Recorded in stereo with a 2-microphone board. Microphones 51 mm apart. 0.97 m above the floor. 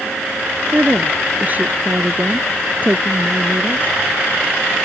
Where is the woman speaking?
35° right (ahead or behind).